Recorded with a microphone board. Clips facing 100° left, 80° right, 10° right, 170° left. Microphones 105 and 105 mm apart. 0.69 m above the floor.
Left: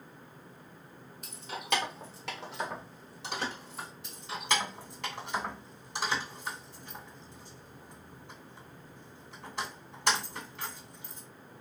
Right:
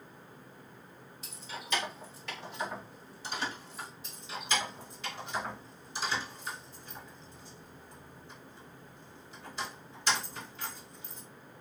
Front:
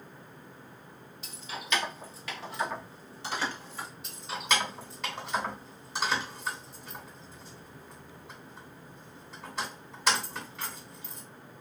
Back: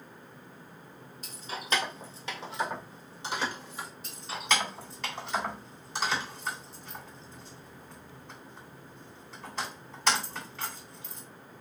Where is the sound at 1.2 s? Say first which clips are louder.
Left 4 dB, back 2 dB; 130° left, 0.8 m; by 3.9 s 100° left, 1.9 m.